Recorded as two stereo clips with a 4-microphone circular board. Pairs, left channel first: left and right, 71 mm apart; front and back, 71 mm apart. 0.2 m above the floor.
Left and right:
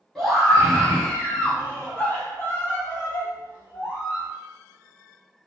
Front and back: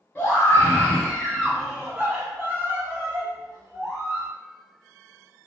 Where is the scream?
5° left, 1.1 m; by 4.3 s 140° left, 2 m.